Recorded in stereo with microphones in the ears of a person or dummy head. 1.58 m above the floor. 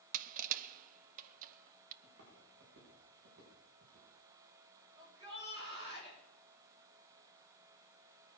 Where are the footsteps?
55° right (ahead or behind), 7.5 m; by 4.1 s 50° right (ahead or behind), 8.5 m.